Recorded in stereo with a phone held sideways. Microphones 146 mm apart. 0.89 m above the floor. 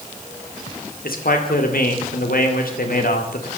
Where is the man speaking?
80° left, 2.5 m.